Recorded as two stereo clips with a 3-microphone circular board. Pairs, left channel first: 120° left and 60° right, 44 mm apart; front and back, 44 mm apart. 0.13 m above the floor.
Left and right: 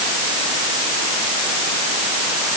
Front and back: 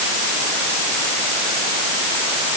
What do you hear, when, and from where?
Only background noise.